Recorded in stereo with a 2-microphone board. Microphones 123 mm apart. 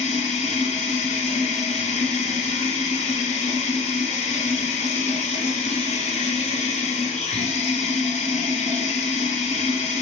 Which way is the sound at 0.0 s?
65° left (ahead or behind).